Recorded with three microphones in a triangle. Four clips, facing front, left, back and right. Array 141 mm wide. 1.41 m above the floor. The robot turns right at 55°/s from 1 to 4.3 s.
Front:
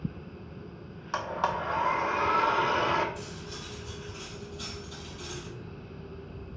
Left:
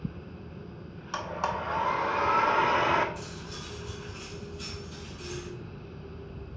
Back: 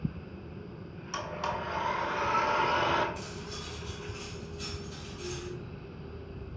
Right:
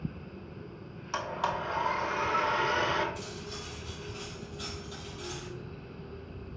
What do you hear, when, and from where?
1.1 s a blender: straight ahead, 1.0 m; by 3.0 s 105° left, 1.0 m
3.1 s cutlery clinking: 140° right, 4.5 m; by 5.5 s 75° right, 4.5 m